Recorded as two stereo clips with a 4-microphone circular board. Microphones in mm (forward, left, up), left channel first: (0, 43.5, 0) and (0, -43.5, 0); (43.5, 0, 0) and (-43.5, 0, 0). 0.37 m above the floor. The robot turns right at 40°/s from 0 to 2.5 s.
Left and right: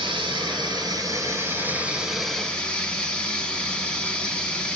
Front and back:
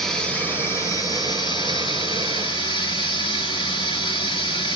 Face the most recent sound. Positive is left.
turn(degrees=15)